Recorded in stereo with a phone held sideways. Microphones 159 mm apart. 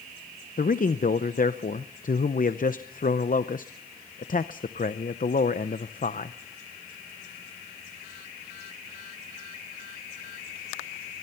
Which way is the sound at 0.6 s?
60° left (ahead or behind).